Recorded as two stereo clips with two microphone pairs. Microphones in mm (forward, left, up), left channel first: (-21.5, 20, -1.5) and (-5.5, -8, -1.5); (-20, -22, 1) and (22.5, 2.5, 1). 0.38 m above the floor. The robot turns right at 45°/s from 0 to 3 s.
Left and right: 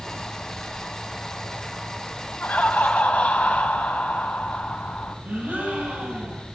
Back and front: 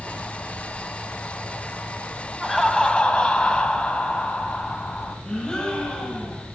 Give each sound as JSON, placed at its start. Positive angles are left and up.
{"t": 2.4, "sound": "laughter", "azimuth_deg": 115, "distance_m": 2.5}
{"t": 5.2, "sound": "a gasp", "azimuth_deg": -75, "distance_m": 4.5}